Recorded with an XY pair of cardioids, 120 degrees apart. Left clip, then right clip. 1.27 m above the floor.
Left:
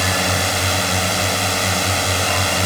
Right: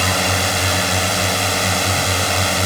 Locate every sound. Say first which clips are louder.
0.0 s a drone: right 1 dB; 5° right